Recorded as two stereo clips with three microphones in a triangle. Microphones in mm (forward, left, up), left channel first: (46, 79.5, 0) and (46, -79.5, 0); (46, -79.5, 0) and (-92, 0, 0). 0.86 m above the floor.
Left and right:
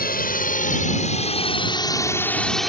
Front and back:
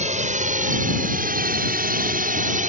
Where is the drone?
110° left; by 2.7 s straight behind.